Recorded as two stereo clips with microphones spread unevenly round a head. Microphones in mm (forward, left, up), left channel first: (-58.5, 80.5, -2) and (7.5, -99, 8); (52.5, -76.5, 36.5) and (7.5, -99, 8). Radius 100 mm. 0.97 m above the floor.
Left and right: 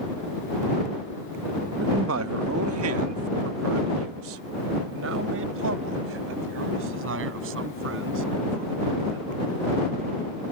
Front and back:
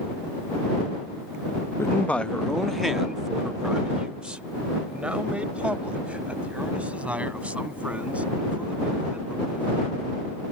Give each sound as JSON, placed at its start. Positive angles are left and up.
{"t": 1.8, "sound": "a man speaking", "azimuth_deg": -35}